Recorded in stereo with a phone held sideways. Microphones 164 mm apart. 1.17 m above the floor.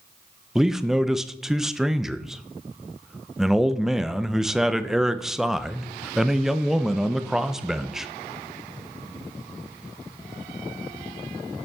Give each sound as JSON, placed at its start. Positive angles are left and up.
{"t": 0.6, "sound": "a man speaking", "side_deg": 0, "distance_m": 0.5}